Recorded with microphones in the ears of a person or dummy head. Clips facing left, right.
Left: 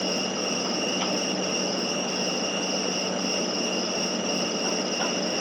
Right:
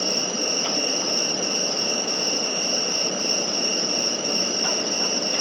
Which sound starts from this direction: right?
An insect, at 0.0 s.